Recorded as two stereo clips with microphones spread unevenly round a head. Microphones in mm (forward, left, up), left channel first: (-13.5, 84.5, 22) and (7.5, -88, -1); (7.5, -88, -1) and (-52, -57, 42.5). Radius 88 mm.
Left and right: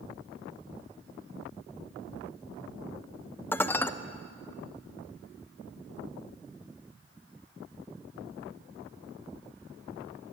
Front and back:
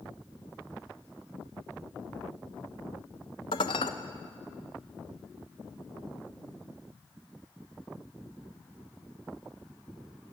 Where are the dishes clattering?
40° left, 0.8 m.